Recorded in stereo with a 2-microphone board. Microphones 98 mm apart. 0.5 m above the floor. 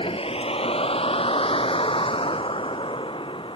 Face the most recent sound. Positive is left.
turn(degrees=60)  # may be behind; listen again after turning